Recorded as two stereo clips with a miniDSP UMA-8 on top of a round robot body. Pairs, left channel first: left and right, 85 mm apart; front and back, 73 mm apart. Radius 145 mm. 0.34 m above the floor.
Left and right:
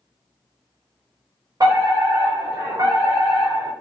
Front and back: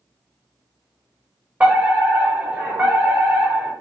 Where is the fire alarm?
115° right, 4 m.